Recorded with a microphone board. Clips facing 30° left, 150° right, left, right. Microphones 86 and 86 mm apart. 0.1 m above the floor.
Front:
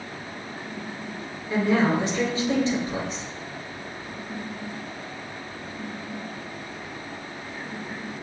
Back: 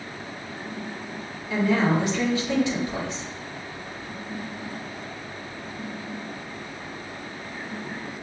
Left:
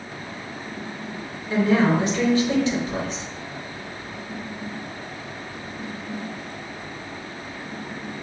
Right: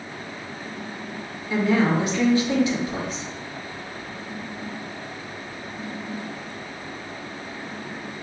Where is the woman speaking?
50° left, 2 m.